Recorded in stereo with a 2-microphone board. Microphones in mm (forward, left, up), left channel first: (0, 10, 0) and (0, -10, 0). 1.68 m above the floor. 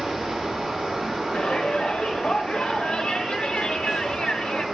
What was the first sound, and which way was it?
Running water, 55° right (ahead or behind).